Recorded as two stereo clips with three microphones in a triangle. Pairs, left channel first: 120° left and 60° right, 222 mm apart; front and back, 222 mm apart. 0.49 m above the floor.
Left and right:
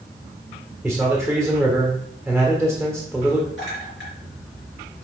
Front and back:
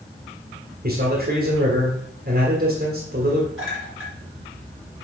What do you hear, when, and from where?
0.8 s a man speaking: 150° right, 1.6 m
3.6 s a clink: 155° left, 4.5 m